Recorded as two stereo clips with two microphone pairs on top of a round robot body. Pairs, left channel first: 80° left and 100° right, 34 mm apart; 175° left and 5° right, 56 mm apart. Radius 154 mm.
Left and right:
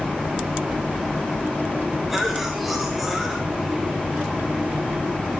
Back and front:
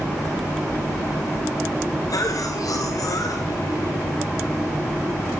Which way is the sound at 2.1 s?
175° left.